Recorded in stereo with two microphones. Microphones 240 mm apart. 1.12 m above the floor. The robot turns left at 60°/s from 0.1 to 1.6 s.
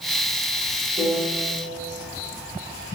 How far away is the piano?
About 1.2 m.